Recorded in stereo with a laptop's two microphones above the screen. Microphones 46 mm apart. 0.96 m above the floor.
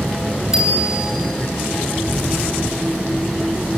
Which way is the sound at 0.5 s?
15° right (ahead or behind).